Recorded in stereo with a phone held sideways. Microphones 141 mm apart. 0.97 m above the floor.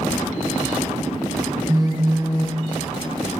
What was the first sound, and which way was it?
A phone buzzing, 25° right (ahead or behind).